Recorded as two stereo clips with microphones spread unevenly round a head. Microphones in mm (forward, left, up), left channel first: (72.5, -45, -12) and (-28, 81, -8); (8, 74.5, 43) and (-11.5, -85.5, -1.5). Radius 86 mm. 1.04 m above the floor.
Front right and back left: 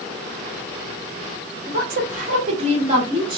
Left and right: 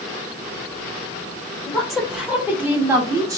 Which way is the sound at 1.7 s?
170° left.